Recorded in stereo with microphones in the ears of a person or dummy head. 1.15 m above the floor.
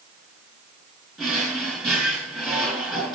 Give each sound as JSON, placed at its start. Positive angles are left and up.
{"t": 1.2, "sound": "a drawer", "side_deg": 0, "distance_m": 3.5}